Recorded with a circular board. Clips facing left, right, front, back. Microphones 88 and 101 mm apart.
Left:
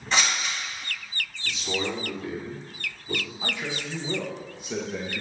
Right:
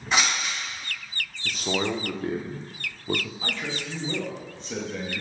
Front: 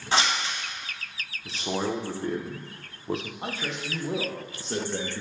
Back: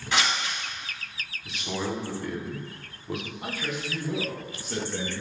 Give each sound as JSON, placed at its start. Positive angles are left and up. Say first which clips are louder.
{"t": 0.1, "sound": "scissors", "louder": "right 1 dB, front 2 dB", "azimuth_deg": -15, "distance_m": 1.1}
{"t": 1.4, "sound": "a man speaking", "louder": "right 3 dB, front 3 dB", "azimuth_deg": -50, "distance_m": 0.5}
{"t": 3.4, "sound": "a man speaking", "louder": "even, even", "azimuth_deg": 25, "distance_m": 0.7}